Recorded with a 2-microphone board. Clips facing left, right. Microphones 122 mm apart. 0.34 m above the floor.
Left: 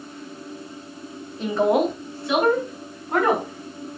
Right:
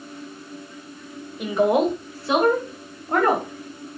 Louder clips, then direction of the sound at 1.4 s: Right 1 dB; 15° right (ahead or behind).